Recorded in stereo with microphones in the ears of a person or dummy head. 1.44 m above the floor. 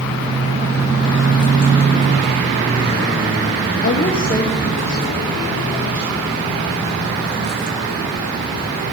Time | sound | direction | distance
3.8 | a woman speaking | 45° left (ahead or behind) | 0.6 m